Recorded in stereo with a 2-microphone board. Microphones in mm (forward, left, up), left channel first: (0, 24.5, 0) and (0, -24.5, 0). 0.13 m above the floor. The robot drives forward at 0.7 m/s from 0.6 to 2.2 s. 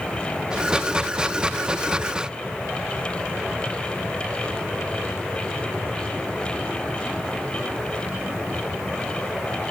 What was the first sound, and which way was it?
Only background noise.